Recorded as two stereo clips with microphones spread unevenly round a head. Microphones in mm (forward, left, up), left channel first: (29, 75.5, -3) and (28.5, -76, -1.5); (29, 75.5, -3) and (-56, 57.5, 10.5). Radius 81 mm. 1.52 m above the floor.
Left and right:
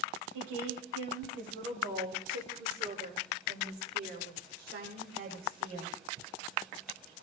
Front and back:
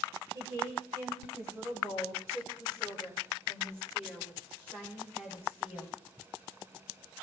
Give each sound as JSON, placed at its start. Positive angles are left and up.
{"t": 0.3, "sound": "a woman speaking", "azimuth_deg": -95, "distance_m": 6.5}